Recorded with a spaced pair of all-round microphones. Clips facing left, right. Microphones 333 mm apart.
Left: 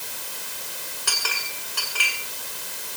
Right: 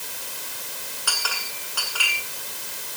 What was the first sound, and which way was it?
A clink, 30° left (ahead or behind).